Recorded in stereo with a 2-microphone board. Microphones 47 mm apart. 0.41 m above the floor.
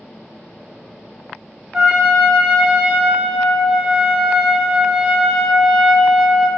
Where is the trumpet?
10° right (ahead or behind), 1.1 m.